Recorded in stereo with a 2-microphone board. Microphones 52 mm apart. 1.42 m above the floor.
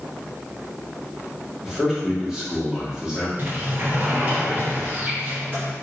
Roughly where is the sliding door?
Right.